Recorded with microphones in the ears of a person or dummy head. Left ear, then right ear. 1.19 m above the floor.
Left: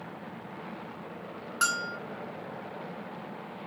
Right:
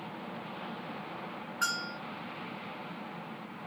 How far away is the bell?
About 1.3 m.